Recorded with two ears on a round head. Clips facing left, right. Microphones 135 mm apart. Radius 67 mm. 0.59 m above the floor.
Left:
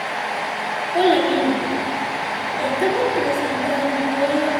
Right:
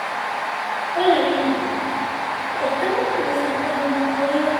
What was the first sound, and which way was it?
A child speaking, 50° left (ahead or behind).